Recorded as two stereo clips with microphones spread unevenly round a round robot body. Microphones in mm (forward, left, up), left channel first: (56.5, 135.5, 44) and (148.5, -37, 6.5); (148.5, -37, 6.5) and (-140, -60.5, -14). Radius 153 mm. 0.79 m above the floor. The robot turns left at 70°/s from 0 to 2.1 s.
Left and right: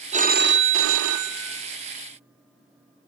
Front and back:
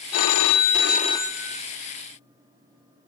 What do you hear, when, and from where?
0.1 s a phone ringing: straight ahead, 0.7 m; by 1.6 s 105° right, 0.7 m